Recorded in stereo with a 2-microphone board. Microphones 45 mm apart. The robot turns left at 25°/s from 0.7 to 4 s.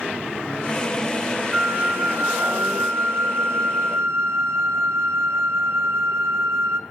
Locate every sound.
1.5 s a flute: 30° right, 0.5 m; by 6.8 s 90° right, 0.5 m